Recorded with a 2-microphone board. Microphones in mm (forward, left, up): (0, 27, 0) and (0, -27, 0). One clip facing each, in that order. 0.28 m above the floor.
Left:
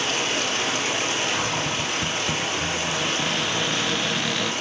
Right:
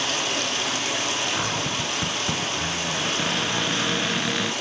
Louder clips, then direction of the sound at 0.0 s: Left 1 dB; 30° left (ahead or behind).